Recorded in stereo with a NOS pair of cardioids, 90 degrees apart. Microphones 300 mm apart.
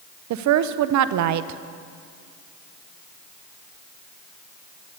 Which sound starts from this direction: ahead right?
A woman speaking, at 0.3 s.